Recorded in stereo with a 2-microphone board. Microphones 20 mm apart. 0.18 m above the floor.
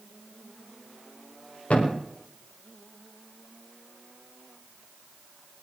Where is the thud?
75° left (ahead or behind), 4.5 m.